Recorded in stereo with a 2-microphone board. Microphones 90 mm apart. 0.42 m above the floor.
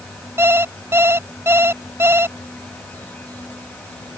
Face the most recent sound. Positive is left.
turn(degrees=-25)  # may be behind; listen again after turning